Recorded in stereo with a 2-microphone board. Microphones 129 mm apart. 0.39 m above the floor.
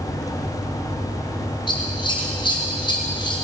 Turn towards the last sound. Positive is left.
turn(degrees=40)  # may be behind; listen again after turning